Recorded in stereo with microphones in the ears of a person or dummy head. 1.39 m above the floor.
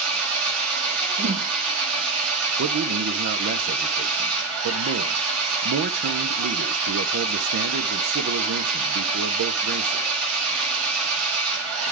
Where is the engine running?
80° right, 3.5 m.